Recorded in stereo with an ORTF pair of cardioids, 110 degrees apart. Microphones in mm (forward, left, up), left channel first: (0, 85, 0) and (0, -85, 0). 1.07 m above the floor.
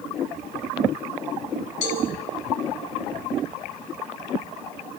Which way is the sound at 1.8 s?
60° left.